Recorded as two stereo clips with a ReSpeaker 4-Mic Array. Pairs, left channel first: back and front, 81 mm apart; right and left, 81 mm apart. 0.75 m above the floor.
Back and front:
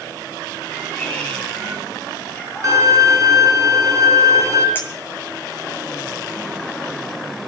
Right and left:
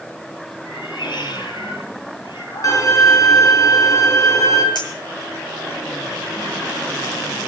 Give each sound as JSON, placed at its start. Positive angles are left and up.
{"t": 0.7, "sound": "a cat meowing", "azimuth_deg": -105, "distance_m": 8.5}
{"t": 2.6, "sound": "a violin", "azimuth_deg": -45, "distance_m": 4.0}
{"t": 4.8, "sound": "a clink", "azimuth_deg": -120, "distance_m": 8.5}